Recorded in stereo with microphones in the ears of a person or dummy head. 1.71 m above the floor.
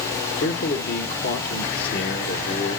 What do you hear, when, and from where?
0.4 s a man speaking: 65° left (ahead or behind), 1.4 m